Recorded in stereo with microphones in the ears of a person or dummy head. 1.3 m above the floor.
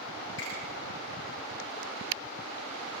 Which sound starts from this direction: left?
A finger snap, at 0.4 s.